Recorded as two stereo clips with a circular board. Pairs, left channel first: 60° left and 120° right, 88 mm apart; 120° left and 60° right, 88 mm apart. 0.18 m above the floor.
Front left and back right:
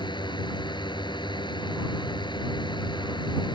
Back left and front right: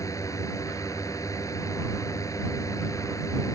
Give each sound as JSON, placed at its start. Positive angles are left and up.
{"t": 0.0, "sound": "a drone", "azimuth_deg": 70}